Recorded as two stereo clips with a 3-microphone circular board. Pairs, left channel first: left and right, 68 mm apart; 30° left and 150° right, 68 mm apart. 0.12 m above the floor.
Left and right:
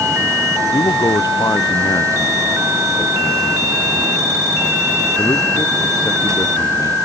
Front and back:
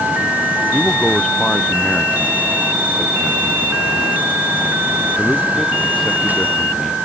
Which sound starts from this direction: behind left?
A man speaking, at 0.7 s.